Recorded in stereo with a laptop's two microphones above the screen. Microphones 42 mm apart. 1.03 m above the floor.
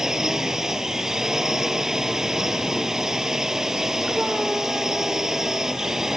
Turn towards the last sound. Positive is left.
turn(degrees=-10)  # may be behind; listen again after turning